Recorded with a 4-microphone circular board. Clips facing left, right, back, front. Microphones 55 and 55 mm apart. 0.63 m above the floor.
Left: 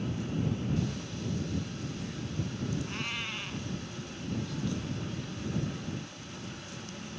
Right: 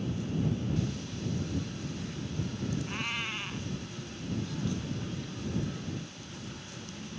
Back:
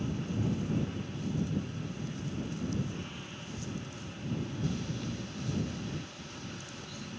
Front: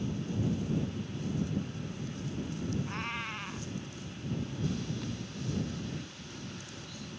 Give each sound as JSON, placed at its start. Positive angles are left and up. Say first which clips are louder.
{"t": 2.9, "sound": "a cat meowing", "louder": "right 1 dB, front 5 dB", "azimuth_deg": -10}